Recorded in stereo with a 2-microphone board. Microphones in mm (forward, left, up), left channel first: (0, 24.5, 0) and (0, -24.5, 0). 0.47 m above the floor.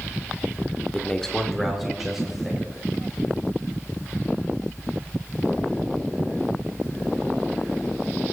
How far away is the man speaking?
About 1.0 m.